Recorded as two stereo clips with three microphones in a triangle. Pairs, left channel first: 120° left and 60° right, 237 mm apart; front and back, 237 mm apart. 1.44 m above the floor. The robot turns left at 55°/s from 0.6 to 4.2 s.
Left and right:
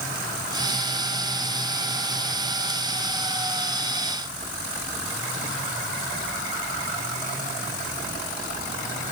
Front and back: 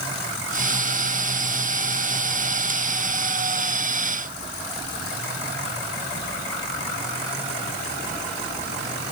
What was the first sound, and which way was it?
Only background noise.